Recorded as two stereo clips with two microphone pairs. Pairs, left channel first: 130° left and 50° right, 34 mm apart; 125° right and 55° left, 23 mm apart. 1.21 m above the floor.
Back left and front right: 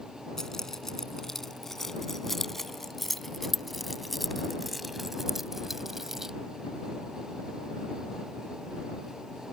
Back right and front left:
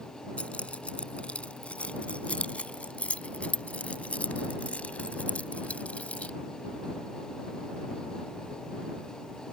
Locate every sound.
0.4 s keys jangling: 155° right; by 6.3 s 130° right